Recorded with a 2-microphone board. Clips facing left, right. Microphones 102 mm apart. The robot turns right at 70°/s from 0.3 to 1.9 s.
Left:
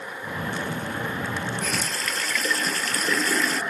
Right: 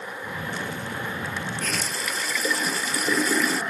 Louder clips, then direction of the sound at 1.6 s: Left 1 dB; 10° left (ahead or behind).